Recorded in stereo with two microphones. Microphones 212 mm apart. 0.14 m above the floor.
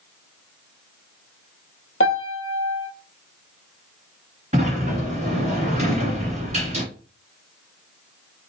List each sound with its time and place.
2.0 s a piano: 75° left (ahead or behind), 0.9 m
4.5 s a sliding door: 35° right (ahead or behind), 2 m